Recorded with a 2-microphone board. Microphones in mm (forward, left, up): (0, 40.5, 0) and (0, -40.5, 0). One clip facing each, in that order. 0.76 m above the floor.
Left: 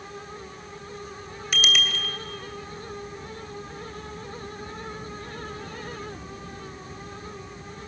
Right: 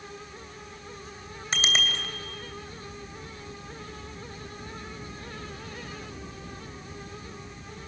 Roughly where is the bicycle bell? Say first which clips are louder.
Left 2 dB; right.